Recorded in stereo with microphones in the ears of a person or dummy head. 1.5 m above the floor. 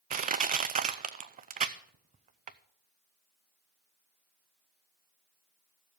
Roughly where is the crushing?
Right.